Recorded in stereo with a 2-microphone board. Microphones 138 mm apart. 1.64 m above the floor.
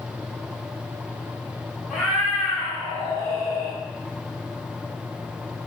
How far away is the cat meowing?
About 1.9 m.